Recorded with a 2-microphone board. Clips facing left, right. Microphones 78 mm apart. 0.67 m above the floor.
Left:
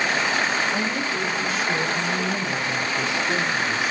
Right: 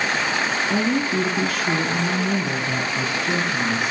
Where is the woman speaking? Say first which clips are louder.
Right 4 dB; 55° right (ahead or behind), 6.5 m; by 3.9 s 50° right (ahead or behind), 8 m.